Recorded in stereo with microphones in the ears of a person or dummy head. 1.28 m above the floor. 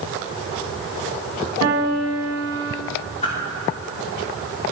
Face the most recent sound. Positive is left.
turn(degrees=35)  # may be behind; listen again after turning